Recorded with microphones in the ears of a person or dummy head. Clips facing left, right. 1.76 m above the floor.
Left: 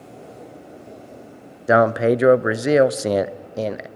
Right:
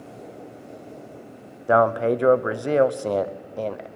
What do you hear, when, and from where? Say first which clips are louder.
1.7 s a man speaking: left 3 dB; 25° left (ahead or behind), 0.7 m